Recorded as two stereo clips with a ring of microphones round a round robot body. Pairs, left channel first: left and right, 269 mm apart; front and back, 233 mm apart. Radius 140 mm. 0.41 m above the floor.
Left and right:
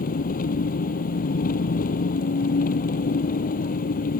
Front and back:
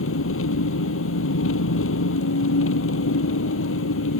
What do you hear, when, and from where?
0.0 s an engine running: 30° left